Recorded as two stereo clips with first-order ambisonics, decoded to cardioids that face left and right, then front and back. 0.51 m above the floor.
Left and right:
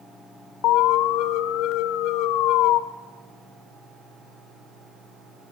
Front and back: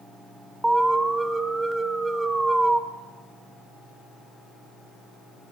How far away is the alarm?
About 1.3 m.